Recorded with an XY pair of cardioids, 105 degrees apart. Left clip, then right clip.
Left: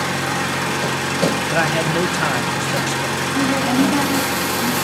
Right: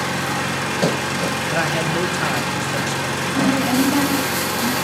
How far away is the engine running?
About 2 m.